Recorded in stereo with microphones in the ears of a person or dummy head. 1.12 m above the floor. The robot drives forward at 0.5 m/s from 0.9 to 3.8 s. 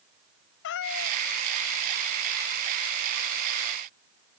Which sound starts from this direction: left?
A cat meowing, at 0.6 s.